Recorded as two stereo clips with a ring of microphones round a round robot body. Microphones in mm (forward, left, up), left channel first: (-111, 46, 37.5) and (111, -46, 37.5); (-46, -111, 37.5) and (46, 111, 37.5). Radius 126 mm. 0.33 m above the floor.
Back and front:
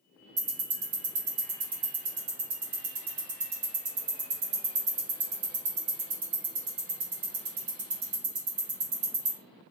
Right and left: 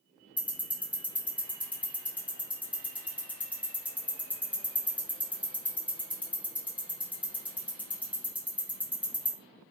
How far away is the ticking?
About 1.6 m.